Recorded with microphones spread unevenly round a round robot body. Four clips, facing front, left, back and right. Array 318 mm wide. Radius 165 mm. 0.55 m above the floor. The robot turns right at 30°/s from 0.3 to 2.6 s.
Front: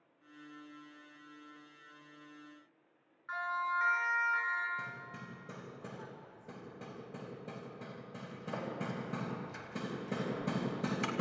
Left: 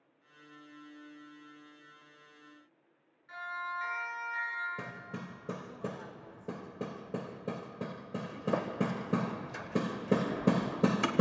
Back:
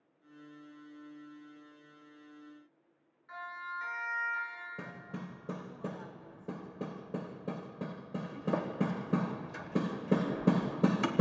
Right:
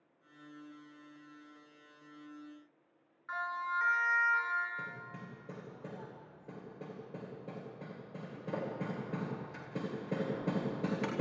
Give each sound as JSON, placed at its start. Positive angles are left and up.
{"t": 3.3, "sound": "a siren", "azimuth_deg": -40, "distance_m": 7.5}
{"t": 4.8, "sound": "hammering", "azimuth_deg": 115, "distance_m": 2.5}